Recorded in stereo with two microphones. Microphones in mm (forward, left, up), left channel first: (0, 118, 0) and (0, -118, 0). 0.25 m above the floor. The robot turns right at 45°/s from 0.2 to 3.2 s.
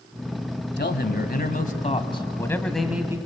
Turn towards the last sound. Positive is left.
turn(degrees=-160)